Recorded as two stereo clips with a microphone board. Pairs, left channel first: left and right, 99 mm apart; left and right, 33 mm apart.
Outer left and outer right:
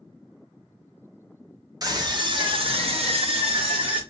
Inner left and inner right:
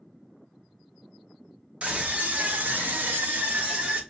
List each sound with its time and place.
1.8 s a scream: 40° right (ahead or behind), 1.0 m; by 4.0 s 60° right (ahead or behind), 1.0 m